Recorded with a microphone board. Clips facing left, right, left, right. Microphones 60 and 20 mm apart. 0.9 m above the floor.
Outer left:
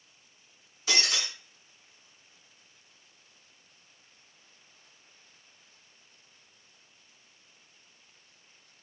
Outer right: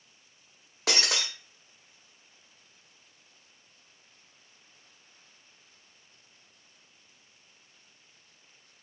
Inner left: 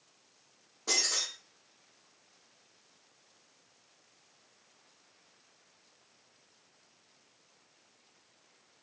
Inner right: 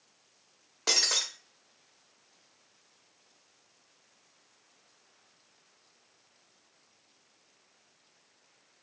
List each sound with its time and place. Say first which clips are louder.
0.9 s breaking glass: outer right 1 dB, inner right 4 dB; 80° right, 0.5 m